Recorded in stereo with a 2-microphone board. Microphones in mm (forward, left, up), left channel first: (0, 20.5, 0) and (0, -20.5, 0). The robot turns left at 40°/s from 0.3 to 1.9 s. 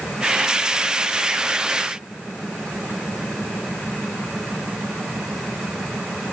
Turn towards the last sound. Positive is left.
No sound to turn to.